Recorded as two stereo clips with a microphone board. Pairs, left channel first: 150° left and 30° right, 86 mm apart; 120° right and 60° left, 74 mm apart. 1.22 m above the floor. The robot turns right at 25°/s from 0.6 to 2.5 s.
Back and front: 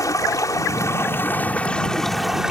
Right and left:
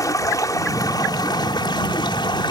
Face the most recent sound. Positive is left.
turn(degrees=-115)